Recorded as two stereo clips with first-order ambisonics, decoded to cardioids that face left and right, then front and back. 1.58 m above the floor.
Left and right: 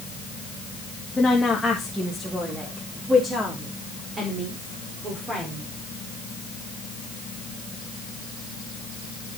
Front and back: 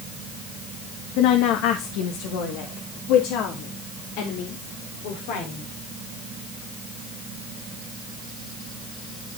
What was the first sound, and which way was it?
A woman speaking, 10° left.